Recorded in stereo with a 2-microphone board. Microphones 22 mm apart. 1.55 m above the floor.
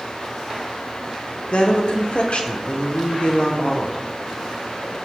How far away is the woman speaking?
About 0.8 m.